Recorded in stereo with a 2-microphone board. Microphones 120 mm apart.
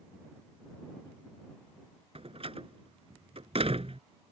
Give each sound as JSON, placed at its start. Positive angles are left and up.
{"t": 2.1, "sound": "a door slam", "side_deg": -55}